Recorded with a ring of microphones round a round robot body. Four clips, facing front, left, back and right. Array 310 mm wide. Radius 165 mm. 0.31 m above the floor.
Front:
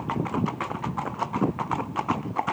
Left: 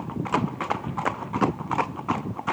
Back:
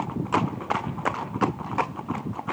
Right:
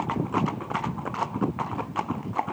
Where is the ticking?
I don't hear ticking.